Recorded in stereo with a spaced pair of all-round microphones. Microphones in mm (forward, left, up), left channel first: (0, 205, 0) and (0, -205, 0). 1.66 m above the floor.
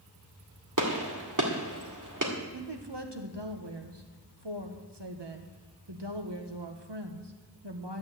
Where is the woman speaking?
80° right, 1.6 m.